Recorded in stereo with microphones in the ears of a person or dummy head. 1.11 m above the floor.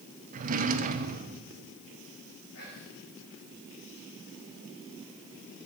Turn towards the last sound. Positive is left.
turn(degrees=80)